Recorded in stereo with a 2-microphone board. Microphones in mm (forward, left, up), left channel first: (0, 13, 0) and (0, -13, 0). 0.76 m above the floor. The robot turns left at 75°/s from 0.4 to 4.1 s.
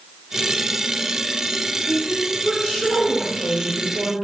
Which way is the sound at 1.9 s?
160° left.